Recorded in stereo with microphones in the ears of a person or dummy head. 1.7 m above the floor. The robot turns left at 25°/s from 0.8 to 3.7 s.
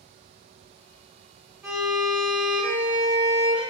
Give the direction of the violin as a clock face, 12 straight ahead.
6 o'clock.